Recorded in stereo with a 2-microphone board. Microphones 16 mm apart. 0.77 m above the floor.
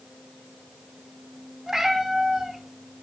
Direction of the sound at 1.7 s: 40° right (ahead or behind).